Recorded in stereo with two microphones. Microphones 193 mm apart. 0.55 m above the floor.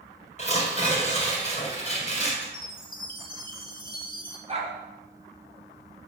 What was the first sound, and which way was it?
Tearing paper, 35° left (ahead or behind).